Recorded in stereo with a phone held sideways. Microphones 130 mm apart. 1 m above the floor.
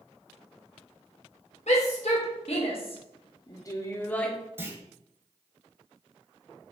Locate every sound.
1.7 s a shout: 65° left (ahead or behind), 1.5 m; by 4.3 s 5° left (ahead or behind), 0.8 m
4.6 s a clunk: 20° right (ahead or behind), 0.8 m